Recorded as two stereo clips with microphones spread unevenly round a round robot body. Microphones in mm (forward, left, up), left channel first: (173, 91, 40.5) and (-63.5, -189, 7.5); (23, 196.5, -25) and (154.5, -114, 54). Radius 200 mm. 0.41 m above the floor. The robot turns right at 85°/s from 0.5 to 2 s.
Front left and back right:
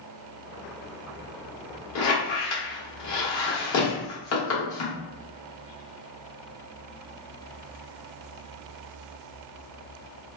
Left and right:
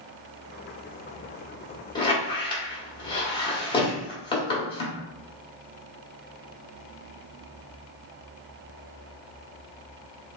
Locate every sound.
1.9 s a squeak: 65° left, 0.9 m; by 5.0 s 70° left, 0.9 m